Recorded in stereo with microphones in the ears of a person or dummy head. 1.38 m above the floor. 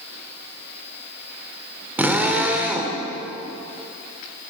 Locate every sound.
2.0 s a drill: 5° right (ahead or behind), 1.9 m